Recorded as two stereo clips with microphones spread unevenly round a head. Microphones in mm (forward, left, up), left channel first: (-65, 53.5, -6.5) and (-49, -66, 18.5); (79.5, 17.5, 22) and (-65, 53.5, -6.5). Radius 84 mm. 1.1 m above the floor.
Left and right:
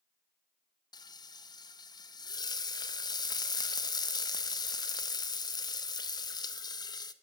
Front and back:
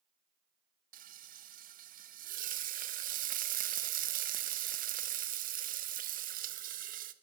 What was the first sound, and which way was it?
Frying, 150° left.